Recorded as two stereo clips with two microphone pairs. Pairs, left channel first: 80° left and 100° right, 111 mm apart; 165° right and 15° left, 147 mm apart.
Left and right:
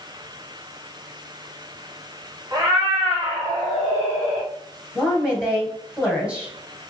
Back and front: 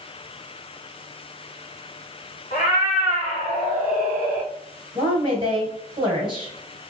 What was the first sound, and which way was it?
A cat meowing, 155° right.